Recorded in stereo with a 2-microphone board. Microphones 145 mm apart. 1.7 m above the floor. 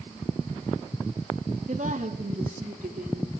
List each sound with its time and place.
1.7 s a woman speaking: 65° right (ahead or behind), 3 m; by 3.3 s 75° right (ahead or behind), 5 m